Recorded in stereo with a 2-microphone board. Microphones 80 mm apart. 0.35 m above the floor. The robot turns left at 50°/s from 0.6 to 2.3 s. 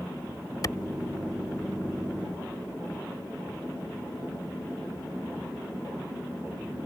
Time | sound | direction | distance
0.6 | a clap | 50° left (ahead or behind) | ?